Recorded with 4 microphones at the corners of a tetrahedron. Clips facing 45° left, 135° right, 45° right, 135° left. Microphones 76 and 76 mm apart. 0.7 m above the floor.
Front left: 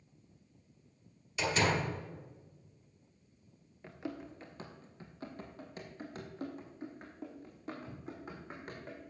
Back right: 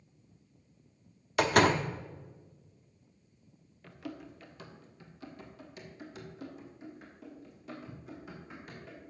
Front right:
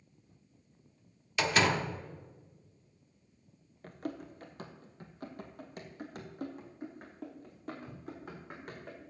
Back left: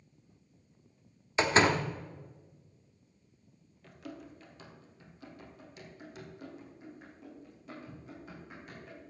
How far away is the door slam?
About 0.9 m.